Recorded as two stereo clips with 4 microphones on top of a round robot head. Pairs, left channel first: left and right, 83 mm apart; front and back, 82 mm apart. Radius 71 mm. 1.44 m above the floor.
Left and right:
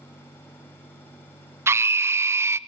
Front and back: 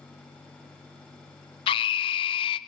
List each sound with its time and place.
1.7 s a scream: 30° right, 0.5 m